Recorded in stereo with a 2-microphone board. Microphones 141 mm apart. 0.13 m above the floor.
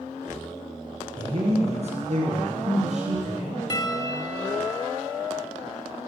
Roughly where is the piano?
Left.